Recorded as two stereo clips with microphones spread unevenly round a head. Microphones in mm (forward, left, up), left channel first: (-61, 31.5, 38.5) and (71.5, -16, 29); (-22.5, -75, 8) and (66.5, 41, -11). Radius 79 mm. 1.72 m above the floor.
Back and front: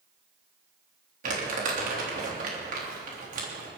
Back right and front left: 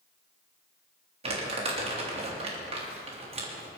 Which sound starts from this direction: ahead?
Crumpling, at 1.2 s.